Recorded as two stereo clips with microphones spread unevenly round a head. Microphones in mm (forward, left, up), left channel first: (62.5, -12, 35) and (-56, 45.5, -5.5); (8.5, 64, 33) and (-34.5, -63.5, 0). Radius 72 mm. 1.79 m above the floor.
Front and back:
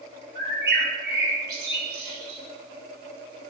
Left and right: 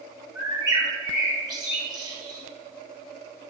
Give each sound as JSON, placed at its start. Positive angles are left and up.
{"t": 0.3, "sound": "a bird", "azimuth_deg": -175, "distance_m": 4.5}